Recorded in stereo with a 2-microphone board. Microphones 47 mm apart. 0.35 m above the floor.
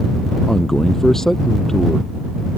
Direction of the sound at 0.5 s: 10° left (ahead or behind).